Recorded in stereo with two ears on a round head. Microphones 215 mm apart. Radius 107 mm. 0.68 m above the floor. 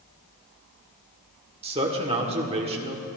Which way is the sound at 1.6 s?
25° right (ahead or behind).